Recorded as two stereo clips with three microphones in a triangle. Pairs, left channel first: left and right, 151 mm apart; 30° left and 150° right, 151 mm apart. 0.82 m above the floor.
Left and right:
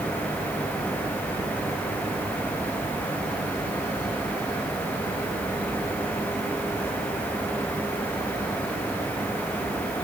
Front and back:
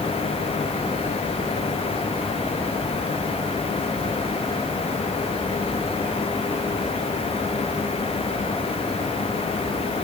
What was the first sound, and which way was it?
Only background noise.